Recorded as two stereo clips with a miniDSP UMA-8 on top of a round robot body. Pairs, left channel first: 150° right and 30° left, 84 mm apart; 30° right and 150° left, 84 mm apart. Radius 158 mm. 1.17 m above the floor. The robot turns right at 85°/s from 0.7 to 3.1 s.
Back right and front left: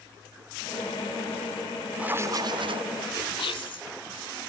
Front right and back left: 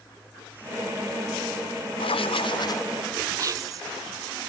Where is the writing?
50° right; by 2.9 s 30° left.